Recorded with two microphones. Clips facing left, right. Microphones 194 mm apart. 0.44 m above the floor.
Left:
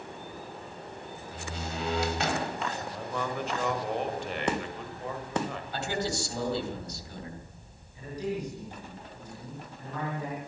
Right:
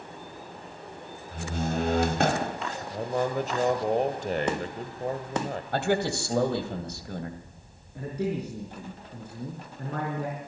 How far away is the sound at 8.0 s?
About 6 m.